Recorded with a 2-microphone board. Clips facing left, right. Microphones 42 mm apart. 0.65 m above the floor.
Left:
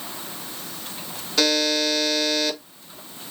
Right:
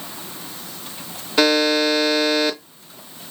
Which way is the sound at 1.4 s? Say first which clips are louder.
Right 5 dB; 30° right (ahead or behind).